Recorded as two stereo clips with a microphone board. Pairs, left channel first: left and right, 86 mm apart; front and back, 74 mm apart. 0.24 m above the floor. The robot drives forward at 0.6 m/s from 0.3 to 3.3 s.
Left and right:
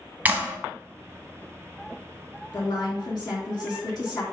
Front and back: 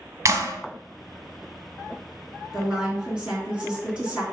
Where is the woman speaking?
95° left, 3.5 m; by 4.2 s 105° left, 3.5 m.